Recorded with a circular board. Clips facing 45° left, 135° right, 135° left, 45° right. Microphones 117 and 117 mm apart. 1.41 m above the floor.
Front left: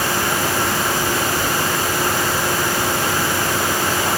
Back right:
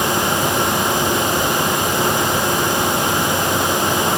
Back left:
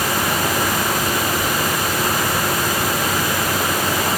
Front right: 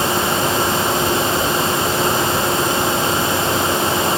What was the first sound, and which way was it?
Only background noise.